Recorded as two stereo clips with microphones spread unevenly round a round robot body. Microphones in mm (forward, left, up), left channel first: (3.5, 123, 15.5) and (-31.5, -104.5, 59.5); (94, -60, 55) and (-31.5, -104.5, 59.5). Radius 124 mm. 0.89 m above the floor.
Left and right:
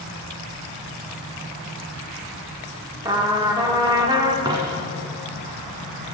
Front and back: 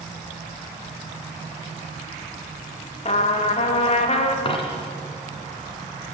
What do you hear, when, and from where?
3.0 s a trumpet: 20° right, 1.5 m
4.5 s a dropped coin: 30° right, 1.9 m